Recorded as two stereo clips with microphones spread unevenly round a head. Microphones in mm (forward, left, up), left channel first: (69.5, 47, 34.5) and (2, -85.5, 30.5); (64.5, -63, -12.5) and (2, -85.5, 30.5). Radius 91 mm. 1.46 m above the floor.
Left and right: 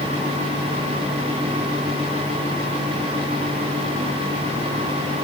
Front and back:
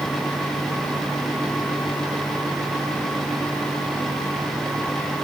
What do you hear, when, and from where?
Only background noise.